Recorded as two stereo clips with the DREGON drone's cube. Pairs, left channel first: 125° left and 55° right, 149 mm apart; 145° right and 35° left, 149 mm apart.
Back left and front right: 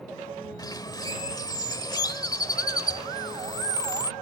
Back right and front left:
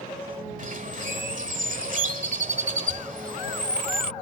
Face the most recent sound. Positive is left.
turn(degrees=60)